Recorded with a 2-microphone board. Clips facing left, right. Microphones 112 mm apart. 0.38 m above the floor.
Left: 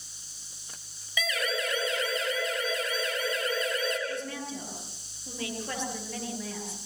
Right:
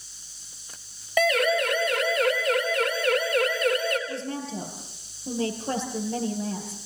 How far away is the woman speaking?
About 8 m.